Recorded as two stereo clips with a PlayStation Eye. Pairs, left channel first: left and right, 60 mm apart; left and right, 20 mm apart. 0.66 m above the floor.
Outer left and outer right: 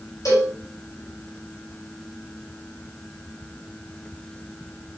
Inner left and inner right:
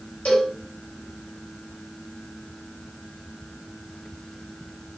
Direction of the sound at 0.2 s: 80° left.